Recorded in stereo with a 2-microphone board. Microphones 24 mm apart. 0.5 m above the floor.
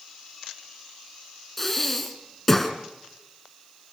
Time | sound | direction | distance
1.6 | breathing | 5° left (ahead or behind) | 2 m